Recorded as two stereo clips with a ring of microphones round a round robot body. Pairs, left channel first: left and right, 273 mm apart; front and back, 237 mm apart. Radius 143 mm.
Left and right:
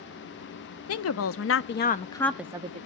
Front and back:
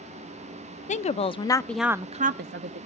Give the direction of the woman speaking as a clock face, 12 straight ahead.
10 o'clock.